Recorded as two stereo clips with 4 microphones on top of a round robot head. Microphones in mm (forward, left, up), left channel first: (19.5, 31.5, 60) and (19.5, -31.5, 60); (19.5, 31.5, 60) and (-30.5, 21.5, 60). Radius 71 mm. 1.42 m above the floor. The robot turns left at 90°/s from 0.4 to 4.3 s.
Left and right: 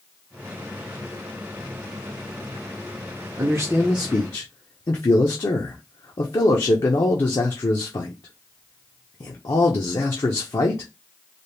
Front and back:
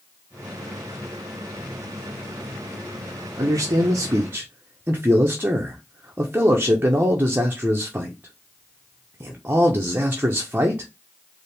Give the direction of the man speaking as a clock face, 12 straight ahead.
5 o'clock.